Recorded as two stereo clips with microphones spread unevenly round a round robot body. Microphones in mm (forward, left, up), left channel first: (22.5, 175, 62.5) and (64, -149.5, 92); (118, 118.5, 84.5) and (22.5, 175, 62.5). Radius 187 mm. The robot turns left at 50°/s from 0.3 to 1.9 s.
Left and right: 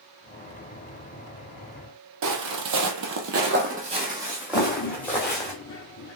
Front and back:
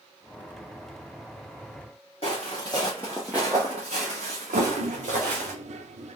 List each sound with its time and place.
2.2 s footsteps: 60° right, 1.0 m; by 5.5 s straight behind, 1.6 m
4.5 s a toilet flushing: 150° left, 0.6 m